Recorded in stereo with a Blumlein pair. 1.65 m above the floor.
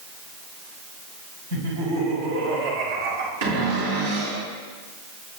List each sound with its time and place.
1.5 s laughter: 65° right, 5 m; by 3.3 s 50° right, 4 m
3.4 s a cupboard door: 55° right, 3.5 m